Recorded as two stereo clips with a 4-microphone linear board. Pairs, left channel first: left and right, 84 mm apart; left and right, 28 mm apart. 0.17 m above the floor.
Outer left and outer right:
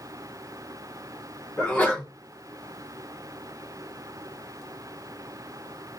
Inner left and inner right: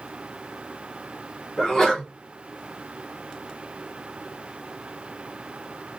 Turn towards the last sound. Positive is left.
turn(degrees=20)  # may be behind; listen again after turning